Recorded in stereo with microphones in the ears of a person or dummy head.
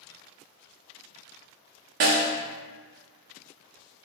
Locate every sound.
2.0 s a snare drum: 45° right (ahead or behind), 0.6 m